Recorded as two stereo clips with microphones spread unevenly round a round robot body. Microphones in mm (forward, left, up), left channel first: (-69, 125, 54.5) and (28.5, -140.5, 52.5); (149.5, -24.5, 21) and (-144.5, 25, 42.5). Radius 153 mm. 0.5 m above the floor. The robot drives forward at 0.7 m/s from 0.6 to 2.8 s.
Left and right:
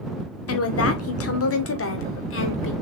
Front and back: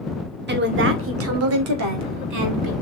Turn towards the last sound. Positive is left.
turn(degrees=155)